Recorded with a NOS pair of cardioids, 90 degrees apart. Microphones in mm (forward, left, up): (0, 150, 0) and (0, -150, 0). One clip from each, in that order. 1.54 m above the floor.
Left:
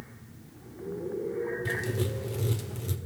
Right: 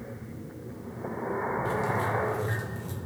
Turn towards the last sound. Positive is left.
turn(degrees=45)